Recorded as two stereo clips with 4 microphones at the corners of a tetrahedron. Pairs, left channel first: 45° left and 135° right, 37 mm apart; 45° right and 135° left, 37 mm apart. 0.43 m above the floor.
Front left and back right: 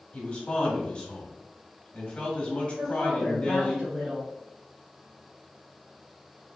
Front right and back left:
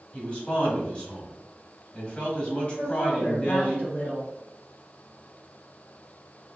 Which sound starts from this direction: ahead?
A man speaking, at 0.1 s.